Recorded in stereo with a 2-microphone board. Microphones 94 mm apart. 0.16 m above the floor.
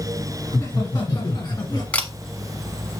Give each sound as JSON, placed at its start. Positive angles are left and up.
{"t": 0.5, "sound": "laughter", "side_deg": 40, "distance_m": 2.0}
{"t": 1.9, "sound": "a camera shutter", "side_deg": 15, "distance_m": 1.0}